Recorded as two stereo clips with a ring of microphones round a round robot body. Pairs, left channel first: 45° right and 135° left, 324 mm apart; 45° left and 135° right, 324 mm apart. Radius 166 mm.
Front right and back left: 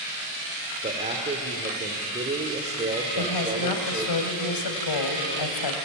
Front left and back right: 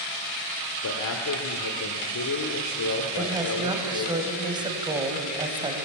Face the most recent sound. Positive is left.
turn(degrees=-60)